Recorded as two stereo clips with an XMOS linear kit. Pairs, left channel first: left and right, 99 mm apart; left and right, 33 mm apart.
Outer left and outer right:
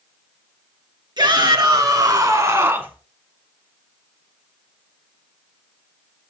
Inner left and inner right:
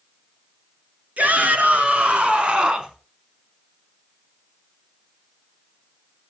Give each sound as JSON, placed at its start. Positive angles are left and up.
{"t": 1.2, "sound": "a shout", "side_deg": -50, "distance_m": 4.0}